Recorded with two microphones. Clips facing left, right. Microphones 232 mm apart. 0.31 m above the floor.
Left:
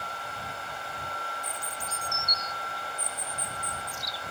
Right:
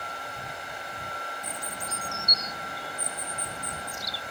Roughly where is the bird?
Right.